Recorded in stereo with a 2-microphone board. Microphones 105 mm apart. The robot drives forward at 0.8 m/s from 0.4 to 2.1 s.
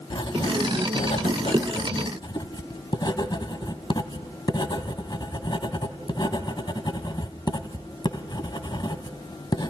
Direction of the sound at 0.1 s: 50° left (ahead or behind).